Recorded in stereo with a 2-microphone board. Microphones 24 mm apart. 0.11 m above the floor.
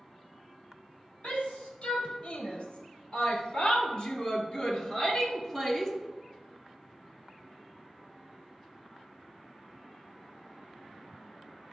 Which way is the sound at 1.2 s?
65° left (ahead or behind).